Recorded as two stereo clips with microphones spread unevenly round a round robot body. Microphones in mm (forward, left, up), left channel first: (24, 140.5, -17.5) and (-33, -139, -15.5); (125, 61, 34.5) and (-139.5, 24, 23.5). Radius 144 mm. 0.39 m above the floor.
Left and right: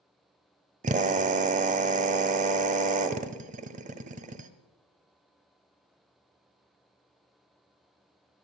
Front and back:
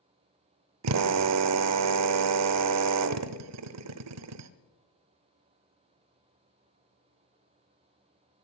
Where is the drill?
165° right, 1.0 m.